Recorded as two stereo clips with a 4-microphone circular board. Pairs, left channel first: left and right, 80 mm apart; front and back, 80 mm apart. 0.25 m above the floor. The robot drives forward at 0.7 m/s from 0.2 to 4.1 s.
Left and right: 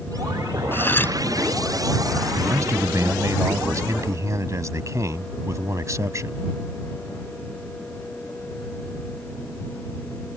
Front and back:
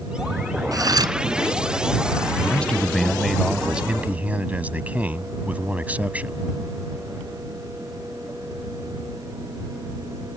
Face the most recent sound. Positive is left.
turn(degrees=-115)